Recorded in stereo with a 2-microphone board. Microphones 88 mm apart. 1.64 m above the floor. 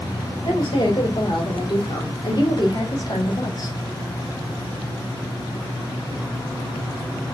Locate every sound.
0.5 s a woman speaking: 55° left (ahead or behind), 2.5 m; by 3.8 s 40° left (ahead or behind), 0.9 m